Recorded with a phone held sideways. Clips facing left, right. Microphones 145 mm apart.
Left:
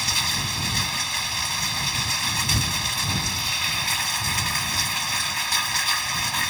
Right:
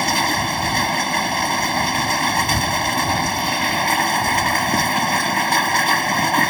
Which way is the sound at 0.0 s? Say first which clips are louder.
Right 12 dB; 60° right (ahead or behind).